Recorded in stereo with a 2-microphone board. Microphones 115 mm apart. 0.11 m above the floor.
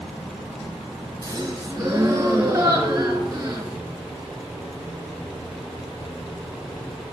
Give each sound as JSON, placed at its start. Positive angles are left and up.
{"t": 1.2, "sound": "a gasp", "side_deg": -25, "distance_m": 1.5}